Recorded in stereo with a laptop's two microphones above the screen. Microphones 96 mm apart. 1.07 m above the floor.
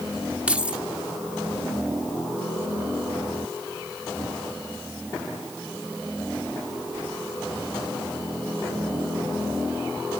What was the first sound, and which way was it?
Keys jangling, 15° right (ahead or behind).